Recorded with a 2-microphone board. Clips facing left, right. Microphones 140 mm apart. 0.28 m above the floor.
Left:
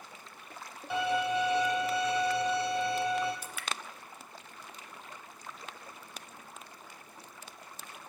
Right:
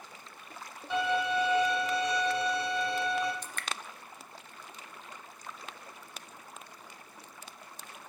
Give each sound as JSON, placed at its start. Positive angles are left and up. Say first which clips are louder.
{"t": 0.9, "sound": "a violin", "louder": "even", "side_deg": 10, "distance_m": 3.0}
{"t": 3.4, "sound": "dripping", "louder": "even", "side_deg": 10, "distance_m": 0.5}